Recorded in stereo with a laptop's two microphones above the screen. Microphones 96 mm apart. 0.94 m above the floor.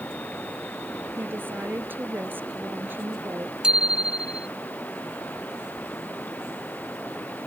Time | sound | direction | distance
0.0 | running water | 15° left (ahead or behind) | ?
1.2 | a woman speaking | 20° right (ahead or behind) | ?
3.6 | a bicycle bell | 10° right (ahead or behind) | ?